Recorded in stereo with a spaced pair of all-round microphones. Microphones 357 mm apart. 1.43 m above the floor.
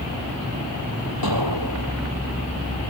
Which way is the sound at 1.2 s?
85° right.